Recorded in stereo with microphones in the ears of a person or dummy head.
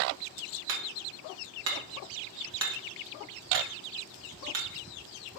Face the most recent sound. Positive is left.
turn(degrees=-75)  # may be behind; listen again after turning